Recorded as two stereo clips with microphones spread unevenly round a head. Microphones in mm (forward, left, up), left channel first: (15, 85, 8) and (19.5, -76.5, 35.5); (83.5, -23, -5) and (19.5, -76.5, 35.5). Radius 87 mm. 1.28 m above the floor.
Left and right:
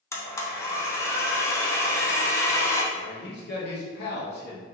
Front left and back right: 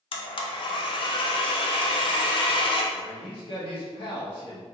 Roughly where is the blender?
Ahead.